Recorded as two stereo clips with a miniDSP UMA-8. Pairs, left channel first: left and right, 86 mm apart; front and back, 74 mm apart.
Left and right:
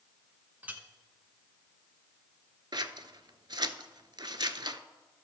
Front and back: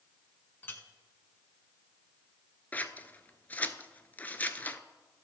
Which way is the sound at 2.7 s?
65° right.